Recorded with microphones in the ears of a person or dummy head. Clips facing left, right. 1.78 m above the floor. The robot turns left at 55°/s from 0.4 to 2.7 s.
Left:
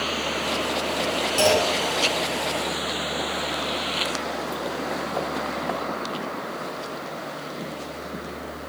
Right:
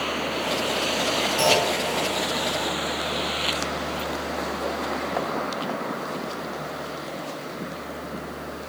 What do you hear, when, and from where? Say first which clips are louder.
1.4 s a clunk: left 2 dB; 60° left (ahead or behind), 3 m; by 1.8 s 40° left (ahead or behind), 3 m